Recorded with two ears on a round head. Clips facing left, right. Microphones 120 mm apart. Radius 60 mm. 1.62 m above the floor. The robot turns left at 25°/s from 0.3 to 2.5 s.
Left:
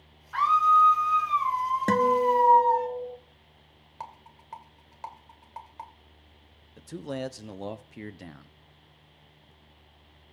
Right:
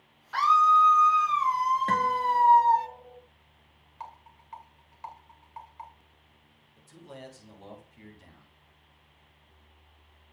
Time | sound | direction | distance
0.3 | a scream | 75° right | 0.7 m
1.9 | a guitar | 50° left (ahead or behind) | 1.7 m
4.0 | a rattle | 55° left (ahead or behind) | 2.5 m
6.8 | a man speaking | 70° left (ahead or behind) | 1.0 m